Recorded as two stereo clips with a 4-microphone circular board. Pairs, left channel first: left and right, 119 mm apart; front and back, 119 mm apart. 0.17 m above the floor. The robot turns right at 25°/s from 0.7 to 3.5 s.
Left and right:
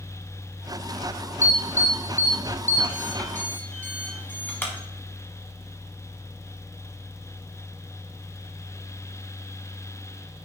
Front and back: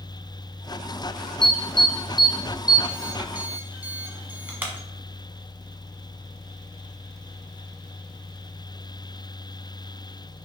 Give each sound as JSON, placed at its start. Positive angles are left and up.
{"t": 1.4, "sound": "an alarm", "azimuth_deg": 80, "distance_m": 1.0}